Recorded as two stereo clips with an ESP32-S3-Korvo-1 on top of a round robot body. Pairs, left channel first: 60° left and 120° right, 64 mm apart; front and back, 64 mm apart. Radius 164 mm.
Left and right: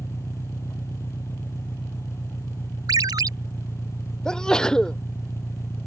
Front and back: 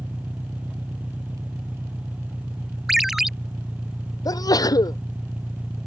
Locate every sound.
0.0 s an engine running: 110° left
2.9 s a ringtone: 95° right
4.2 s a sneeze: 20° right